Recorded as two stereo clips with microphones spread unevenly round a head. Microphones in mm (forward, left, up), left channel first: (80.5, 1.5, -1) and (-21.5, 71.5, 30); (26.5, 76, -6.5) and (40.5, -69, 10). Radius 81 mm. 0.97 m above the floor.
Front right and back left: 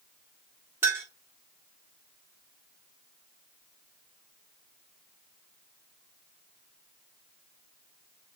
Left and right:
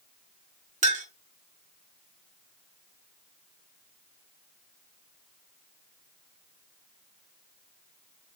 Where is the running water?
No running water in this recording.